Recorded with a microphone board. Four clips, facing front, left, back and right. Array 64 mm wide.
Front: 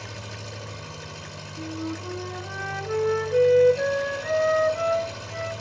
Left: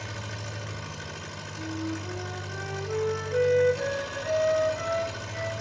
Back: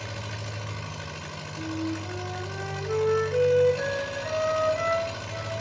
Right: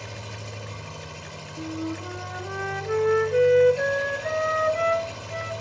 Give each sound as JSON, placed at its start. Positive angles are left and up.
{"t": 0.0, "sound": "an engine running", "azimuth_deg": 155, "distance_m": 3.5}
{"t": 1.6, "sound": "a flute", "azimuth_deg": -75, "distance_m": 0.6}